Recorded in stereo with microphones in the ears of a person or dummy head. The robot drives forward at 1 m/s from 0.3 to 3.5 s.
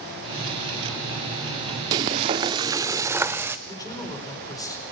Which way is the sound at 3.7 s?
20° left (ahead or behind).